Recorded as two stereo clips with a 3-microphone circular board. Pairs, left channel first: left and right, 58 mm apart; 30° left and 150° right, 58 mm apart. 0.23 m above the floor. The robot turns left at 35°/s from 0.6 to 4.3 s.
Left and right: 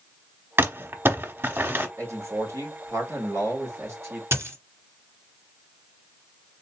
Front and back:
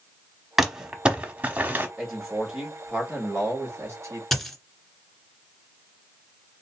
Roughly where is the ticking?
I don't hear ticking.